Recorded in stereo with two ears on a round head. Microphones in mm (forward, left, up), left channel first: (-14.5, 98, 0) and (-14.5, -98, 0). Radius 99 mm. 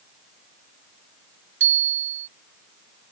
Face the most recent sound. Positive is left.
turn(degrees=-55)  # may be behind; listen again after turning